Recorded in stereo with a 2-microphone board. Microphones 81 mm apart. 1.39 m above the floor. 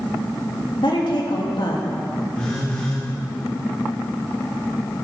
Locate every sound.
0.8 s a woman speaking: 85° left, 3 m; by 1.9 s 75° left (ahead or behind), 2.5 m
2.3 s a phone buzzing: 15° left (ahead or behind), 5.5 m